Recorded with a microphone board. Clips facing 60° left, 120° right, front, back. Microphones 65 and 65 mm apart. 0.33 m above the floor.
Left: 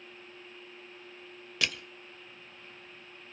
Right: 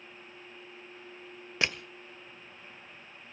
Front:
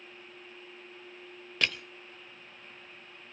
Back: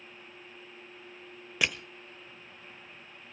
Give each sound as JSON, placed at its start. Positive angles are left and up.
{"t": 1.6, "sound": "crushing", "azimuth_deg": -115, "distance_m": 1.1}